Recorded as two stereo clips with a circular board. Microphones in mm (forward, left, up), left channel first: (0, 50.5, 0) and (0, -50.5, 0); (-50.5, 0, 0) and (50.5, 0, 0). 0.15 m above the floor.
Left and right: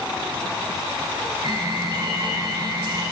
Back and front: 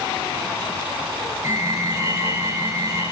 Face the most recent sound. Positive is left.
turn(degrees=-55)